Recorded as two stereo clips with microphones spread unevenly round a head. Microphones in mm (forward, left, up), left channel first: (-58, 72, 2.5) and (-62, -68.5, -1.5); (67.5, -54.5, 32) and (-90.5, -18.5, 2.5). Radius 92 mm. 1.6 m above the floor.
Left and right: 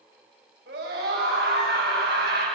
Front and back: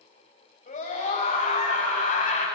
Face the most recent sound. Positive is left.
turn(degrees=-55)